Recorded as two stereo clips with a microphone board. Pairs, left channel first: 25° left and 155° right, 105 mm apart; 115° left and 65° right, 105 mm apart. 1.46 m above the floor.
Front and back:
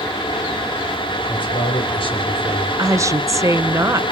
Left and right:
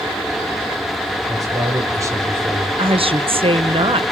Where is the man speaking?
15° right, 5 m; by 2.7 s 5° right, 3 m.